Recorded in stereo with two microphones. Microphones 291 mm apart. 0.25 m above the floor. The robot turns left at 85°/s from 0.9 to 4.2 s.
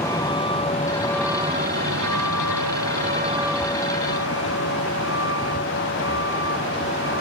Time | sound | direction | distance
0.0 | a vehicle | 10° left (ahead or behind) | ?